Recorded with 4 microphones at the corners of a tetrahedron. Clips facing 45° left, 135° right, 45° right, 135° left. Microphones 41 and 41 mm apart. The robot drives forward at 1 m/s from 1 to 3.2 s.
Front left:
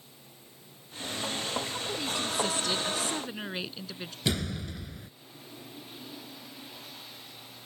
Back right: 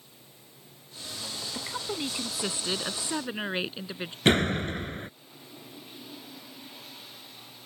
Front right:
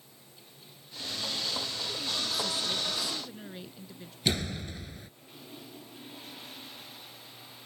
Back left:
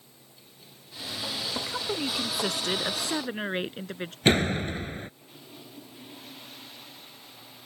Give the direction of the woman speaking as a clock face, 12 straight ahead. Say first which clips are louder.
Front left 1 dB, back left 4 dB; 7 o'clock.